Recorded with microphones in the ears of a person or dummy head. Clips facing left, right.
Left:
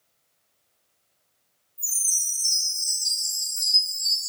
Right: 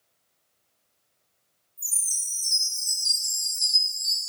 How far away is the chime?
About 1.9 m.